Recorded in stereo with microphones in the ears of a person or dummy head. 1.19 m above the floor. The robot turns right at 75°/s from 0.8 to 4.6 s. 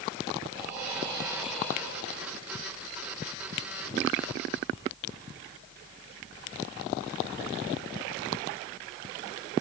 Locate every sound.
0.5 s breathing: 55° right, 3.5 m; by 2.4 s 65° left, 3.5 m